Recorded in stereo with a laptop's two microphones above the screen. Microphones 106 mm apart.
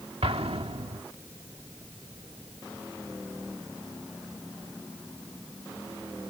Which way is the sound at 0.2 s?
80° right.